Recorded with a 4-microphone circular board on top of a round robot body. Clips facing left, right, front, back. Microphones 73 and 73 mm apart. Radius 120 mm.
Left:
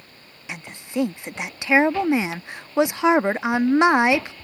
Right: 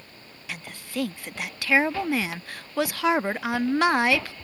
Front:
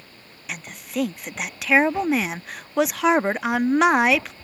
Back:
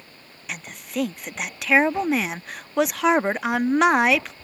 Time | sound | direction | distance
0.5 | a woman speaking | 90° left | ?